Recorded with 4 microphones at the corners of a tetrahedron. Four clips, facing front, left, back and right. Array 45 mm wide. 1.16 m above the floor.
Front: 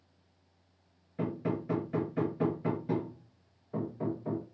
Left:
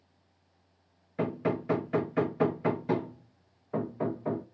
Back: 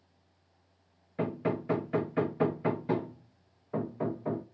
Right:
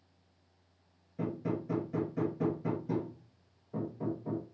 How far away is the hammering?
About 1.1 m.